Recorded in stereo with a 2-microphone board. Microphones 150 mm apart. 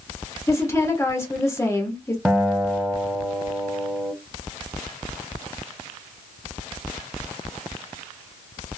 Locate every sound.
0.5 s a woman speaking: 20° left (ahead or behind), 1.0 m
2.2 s a guitar: 10° right (ahead or behind), 0.7 m